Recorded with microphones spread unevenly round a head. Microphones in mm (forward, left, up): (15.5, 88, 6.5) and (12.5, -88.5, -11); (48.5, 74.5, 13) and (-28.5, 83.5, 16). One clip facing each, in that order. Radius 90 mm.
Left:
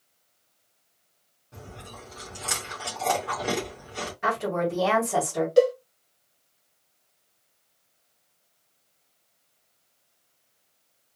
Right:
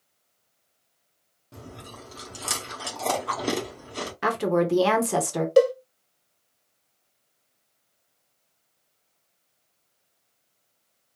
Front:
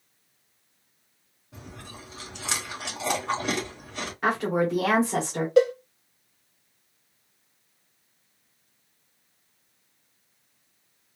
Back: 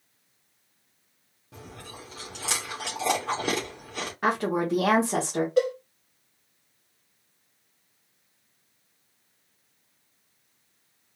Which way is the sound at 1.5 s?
140° right.